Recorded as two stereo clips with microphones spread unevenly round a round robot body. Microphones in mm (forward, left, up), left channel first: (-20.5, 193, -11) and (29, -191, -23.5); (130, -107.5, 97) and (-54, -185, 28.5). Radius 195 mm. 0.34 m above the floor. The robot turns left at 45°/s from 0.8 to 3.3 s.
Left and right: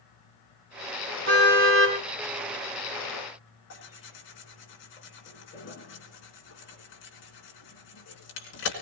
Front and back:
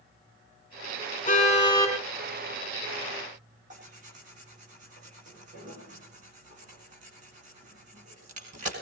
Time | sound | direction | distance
1.3 | a car horn | 30° right | 7.5 m
3.7 | tearing paper | 155° left | 4 m